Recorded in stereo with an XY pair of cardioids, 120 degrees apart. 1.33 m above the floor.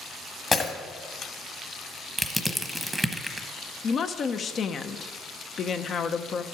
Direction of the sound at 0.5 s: 30° left.